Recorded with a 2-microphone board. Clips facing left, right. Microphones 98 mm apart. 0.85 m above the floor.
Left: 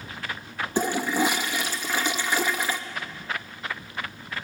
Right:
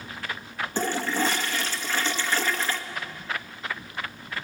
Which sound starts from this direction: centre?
A toilet flushing, at 0.8 s.